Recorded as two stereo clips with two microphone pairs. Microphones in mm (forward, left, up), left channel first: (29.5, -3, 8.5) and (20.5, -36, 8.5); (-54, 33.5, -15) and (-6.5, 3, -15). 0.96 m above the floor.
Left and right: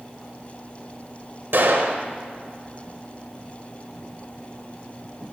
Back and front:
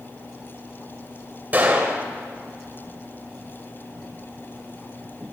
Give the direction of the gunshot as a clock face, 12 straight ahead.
3 o'clock.